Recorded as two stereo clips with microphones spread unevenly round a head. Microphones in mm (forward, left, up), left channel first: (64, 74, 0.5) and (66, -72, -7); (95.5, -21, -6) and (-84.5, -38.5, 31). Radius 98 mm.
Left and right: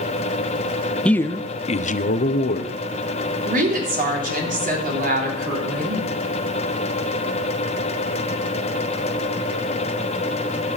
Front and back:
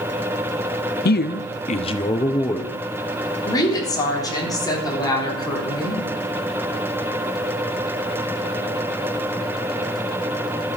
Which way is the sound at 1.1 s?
5° left.